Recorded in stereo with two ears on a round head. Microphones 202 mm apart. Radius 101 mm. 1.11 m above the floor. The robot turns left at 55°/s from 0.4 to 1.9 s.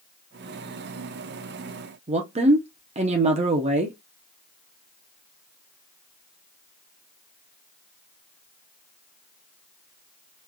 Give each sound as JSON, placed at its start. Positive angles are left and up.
{"t": 2.1, "sound": "a woman speaking", "side_deg": -30, "distance_m": 0.7}